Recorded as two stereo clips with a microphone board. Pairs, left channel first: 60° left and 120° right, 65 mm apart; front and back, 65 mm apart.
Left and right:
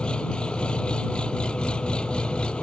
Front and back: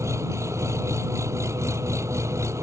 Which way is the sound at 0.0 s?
135° left.